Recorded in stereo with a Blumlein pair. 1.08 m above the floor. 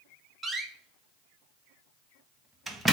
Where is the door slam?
5° right, 0.7 m.